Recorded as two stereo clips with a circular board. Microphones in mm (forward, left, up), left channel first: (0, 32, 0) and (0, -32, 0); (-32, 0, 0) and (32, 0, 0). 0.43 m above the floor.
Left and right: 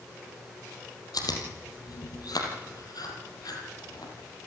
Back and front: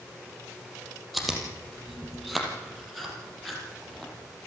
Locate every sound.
1.1 s chewing: 90° left, 4 m